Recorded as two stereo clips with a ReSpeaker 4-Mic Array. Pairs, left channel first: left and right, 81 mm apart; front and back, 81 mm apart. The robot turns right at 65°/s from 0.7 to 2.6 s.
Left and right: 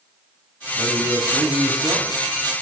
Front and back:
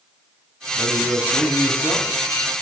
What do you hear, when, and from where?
0.8 s a man speaking: 130° right, 4.5 m; by 2.1 s 40° right, 4.5 m